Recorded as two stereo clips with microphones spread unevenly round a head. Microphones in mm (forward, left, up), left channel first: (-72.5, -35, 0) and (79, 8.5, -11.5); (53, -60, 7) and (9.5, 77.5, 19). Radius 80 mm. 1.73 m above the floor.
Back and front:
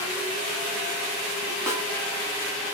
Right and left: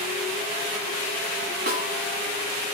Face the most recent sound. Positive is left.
turn(degrees=90)